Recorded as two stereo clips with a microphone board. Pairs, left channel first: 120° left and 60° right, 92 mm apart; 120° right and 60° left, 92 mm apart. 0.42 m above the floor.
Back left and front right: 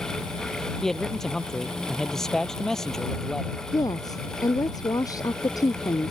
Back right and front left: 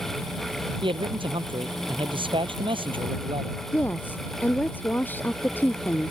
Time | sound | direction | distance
0.8 | a man speaking | 35° left | ?
3.7 | a woman speaking | 170° left | ?